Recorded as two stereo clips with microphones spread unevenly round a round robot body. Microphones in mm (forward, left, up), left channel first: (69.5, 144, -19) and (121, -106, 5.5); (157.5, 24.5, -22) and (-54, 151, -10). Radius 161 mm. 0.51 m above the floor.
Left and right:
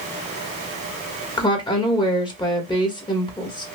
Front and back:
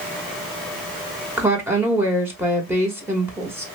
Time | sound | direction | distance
1.4 | a woman speaking | 70° left | 1.1 m